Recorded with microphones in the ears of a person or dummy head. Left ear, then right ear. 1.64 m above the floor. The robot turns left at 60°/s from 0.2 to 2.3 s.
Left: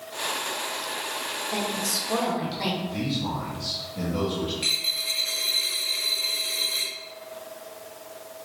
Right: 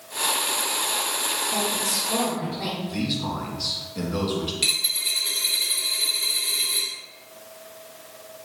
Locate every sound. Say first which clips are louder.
1.5 s a woman speaking: right 2 dB; 110° left, 2 m; by 2.7 s 60° left, 2 m
2.8 s a man speaking: right 1 dB; 35° right (ahead or behind), 1.6 m
4.6 s a dropped coin: right 2 dB; 20° right (ahead or behind), 1.3 m